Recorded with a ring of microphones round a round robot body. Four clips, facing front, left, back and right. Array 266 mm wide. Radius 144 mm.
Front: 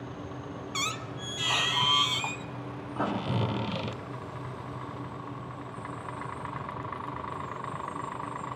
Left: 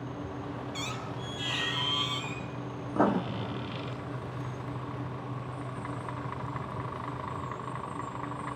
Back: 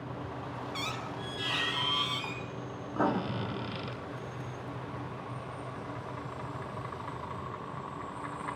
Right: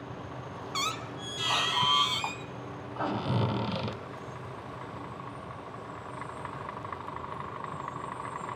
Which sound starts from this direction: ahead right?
A squeak, at 0.7 s.